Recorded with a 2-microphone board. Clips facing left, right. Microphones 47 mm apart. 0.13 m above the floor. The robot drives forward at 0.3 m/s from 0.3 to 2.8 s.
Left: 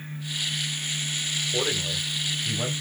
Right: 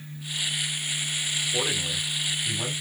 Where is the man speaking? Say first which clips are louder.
Left 2 dB; 20° left (ahead or behind), 2 m; by 2.8 s 15° left (ahead or behind), 2.5 m.